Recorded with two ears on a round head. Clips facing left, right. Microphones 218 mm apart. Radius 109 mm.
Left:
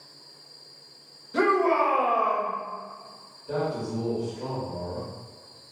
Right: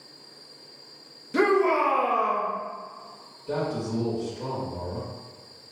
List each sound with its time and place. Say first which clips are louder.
1.3 s a shout: right 2 dB; 35° right (ahead or behind), 0.8 m
3.5 s a man speaking: right 1 dB; 40° right (ahead or behind), 1.5 m